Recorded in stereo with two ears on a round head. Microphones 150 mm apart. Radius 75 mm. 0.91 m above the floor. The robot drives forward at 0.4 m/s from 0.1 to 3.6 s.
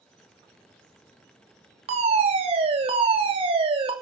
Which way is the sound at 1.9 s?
40° right (ahead or behind).